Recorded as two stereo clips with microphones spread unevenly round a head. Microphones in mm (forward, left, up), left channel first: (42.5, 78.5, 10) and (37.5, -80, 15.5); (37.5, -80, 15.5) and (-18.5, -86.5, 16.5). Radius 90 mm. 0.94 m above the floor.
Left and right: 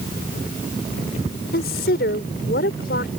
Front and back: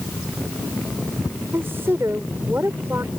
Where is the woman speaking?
120° left.